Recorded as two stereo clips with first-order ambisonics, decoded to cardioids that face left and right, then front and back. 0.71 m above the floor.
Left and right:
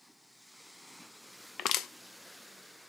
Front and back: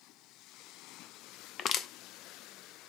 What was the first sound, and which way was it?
Crushing, 45° left.